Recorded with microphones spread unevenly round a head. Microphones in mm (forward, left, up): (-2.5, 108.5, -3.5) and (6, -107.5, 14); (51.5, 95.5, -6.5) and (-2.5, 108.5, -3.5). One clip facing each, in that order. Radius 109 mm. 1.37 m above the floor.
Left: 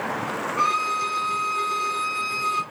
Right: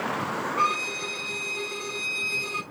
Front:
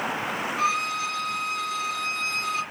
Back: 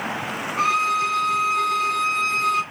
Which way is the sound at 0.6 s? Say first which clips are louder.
Left 1 dB, back 7 dB; 160° left.